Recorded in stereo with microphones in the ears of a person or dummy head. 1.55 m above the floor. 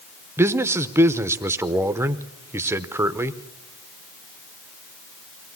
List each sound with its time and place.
0.4 s a man speaking: 10° right (ahead or behind), 0.8 m